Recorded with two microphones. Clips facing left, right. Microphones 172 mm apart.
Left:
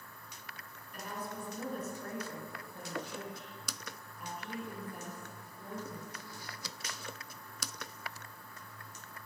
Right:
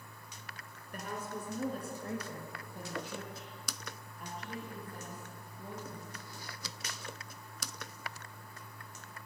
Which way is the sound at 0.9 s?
50° right (ahead or behind).